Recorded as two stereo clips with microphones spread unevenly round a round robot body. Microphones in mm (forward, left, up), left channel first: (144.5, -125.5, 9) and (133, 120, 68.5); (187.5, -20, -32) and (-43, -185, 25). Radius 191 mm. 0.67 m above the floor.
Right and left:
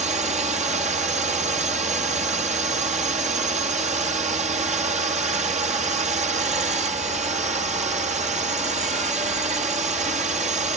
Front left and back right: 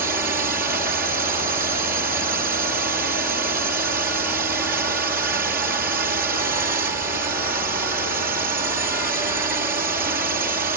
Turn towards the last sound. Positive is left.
turn(degrees=155)